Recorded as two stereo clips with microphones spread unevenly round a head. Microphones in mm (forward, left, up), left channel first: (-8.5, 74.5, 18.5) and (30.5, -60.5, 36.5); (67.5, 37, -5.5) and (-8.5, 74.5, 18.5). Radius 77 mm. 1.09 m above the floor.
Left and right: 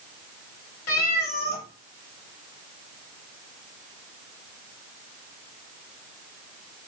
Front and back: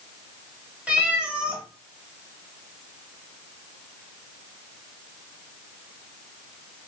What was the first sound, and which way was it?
A cat meowing, 85° left.